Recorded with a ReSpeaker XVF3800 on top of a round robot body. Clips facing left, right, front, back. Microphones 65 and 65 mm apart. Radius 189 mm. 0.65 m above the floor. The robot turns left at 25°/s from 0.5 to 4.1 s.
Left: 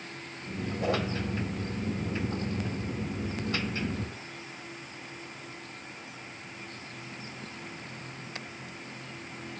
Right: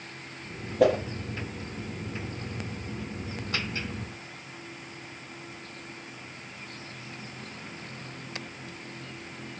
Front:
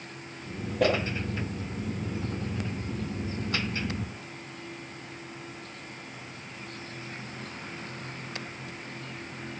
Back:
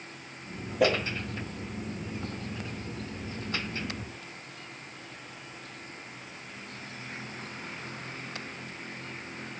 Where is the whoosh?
95° right, 6.5 m; by 1.0 s 100° right, 6.5 m.